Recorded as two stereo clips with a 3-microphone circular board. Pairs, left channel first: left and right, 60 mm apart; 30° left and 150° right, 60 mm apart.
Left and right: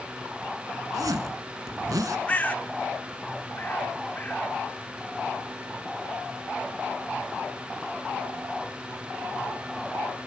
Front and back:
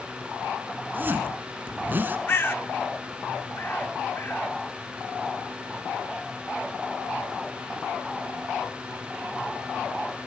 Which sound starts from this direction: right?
A zipper, at 0.9 s.